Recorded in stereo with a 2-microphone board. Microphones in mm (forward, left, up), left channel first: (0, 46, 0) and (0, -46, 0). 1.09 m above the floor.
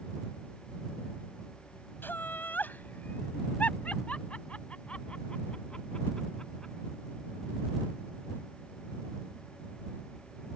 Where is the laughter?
20° left (ahead or behind); by 6.7 s 10° left (ahead or behind).